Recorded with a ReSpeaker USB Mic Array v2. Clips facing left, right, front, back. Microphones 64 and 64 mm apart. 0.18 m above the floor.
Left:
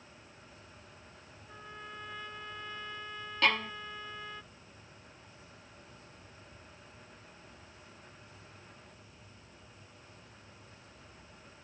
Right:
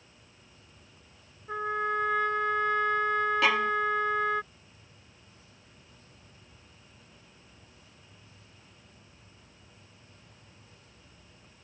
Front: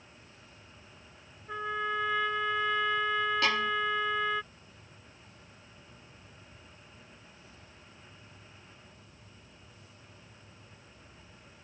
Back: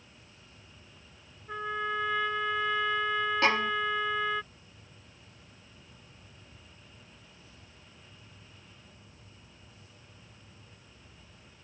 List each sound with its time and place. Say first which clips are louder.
1.5 s a trumpet: right 18 dB, even; 90° right
3.4 s a violin: even, back 2 dB; 170° right